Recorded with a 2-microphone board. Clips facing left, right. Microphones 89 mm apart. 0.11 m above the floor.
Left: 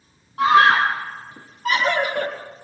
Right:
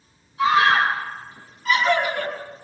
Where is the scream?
65° left (ahead or behind), 3.5 m; by 2.3 s 50° left (ahead or behind), 2 m.